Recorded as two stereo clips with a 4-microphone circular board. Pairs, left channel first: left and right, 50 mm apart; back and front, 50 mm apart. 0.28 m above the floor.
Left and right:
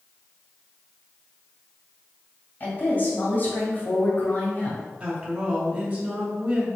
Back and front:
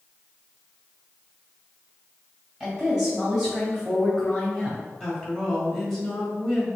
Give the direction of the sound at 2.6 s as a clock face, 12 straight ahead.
10 o'clock.